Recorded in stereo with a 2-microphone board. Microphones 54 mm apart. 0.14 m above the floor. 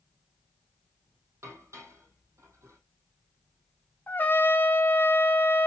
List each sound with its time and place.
1.4 s dishes clattering: 60° right (ahead or behind), 4 m
4.1 s a trumpet: 35° left (ahead or behind), 1.1 m